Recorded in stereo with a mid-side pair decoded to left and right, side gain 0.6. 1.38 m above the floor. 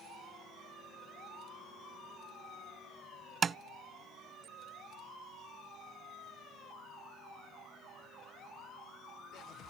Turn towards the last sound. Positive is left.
turn(degrees=-35)